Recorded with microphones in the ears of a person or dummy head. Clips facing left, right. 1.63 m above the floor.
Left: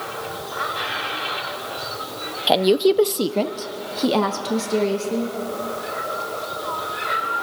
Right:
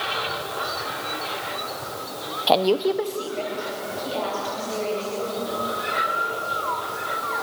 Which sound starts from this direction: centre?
A woman speaking, at 2.5 s.